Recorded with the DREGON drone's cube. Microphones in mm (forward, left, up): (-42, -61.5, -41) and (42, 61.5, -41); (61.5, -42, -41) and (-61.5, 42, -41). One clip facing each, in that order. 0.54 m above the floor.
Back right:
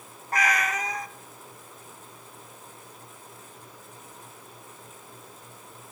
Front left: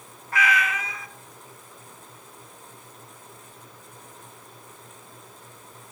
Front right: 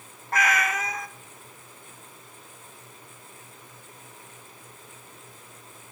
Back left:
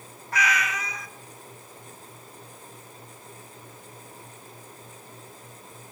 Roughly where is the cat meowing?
Right.